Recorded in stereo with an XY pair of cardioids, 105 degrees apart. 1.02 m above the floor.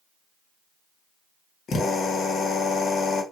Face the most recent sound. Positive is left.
turn(degrees=60)